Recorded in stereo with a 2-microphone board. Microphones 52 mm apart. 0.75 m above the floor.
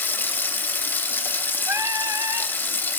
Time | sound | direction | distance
0.0 | running water | 40° left (ahead or behind) | 0.7 m
1.7 | singing | 65° right (ahead or behind) | 0.6 m